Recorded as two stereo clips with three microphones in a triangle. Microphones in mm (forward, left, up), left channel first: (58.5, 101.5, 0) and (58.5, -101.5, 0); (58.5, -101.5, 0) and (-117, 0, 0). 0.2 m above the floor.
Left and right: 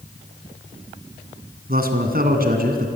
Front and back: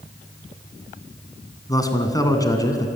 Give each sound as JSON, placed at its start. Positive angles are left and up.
{"t": 1.7, "sound": "a man speaking", "azimuth_deg": -95, "distance_m": 2.5}